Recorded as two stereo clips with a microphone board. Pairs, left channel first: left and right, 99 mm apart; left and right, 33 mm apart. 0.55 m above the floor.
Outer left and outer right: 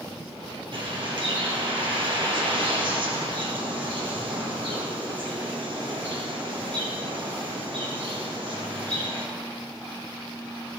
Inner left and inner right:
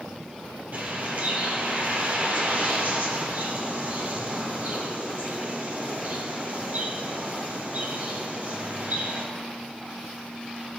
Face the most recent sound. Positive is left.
turn(degrees=-55)  # may be behind; listen again after turning